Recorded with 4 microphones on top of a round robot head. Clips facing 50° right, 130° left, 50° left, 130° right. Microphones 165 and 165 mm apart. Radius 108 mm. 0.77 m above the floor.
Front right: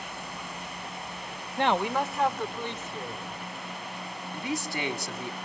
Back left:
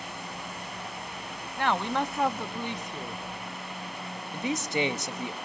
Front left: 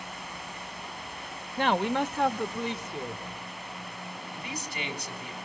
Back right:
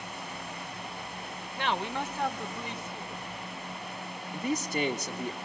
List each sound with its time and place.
1.6 s a man speaking: 10° left, 0.7 m; by 3.2 s 60° left, 1.9 m
4.3 s a man speaking: 165° right, 1.4 m